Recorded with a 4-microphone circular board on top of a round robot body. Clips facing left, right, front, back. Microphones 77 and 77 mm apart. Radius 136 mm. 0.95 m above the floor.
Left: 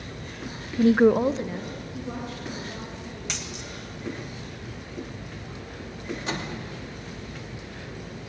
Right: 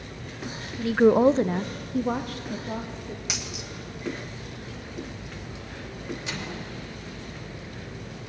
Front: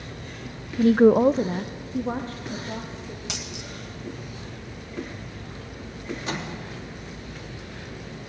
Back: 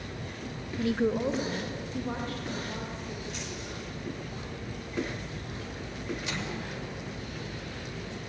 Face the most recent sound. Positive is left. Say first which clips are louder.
# left 3 dB, front 4 dB
turn(degrees=45)